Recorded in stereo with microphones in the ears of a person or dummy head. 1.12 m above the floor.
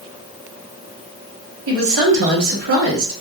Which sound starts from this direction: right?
A woman speaking, at 1.7 s.